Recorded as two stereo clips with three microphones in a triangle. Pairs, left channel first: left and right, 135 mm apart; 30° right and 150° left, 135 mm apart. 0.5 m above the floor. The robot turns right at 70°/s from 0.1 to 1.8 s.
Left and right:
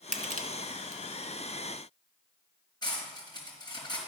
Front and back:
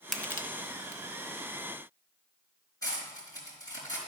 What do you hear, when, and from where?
0.1 s crushing: 120° right, 0.8 m; by 1.0 s 55° right, 0.8 m
2.8 s cutlery clinking: 35° left, 3.5 m